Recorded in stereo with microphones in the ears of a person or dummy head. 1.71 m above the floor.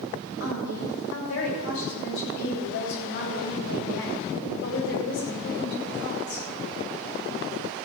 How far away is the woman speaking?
About 8.5 m.